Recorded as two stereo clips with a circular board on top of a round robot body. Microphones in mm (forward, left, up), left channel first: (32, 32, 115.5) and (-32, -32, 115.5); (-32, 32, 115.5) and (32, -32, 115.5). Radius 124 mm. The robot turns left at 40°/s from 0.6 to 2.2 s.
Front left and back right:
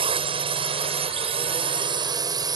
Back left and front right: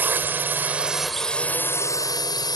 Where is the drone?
115° right; by 2.6 s straight behind.